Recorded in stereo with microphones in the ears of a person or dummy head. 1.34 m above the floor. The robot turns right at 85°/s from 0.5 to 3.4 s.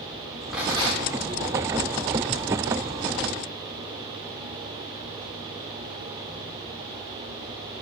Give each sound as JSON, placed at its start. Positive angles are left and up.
{"t": 0.5, "sound": "a rattle", "azimuth_deg": -175, "distance_m": 3.0}